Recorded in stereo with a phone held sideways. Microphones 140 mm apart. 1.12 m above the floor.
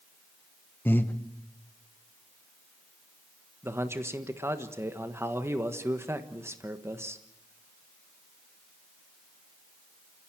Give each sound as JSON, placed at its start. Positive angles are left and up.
{"t": 0.8, "sound": "breathing", "side_deg": 15, "distance_m": 1.1}
{"t": 3.6, "sound": "a man speaking", "side_deg": -20, "distance_m": 1.4}